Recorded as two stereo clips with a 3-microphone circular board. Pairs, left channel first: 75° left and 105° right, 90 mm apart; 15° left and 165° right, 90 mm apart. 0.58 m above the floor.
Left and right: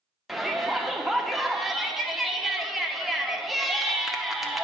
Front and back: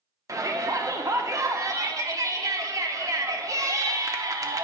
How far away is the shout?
About 0.8 m.